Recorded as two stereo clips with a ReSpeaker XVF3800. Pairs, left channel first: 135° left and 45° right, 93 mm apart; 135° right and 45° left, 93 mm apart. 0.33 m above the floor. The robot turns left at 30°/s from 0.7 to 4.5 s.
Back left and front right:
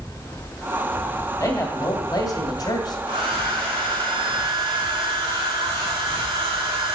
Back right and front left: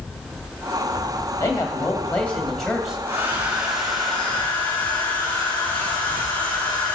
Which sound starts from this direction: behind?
A man speaking, at 1.4 s.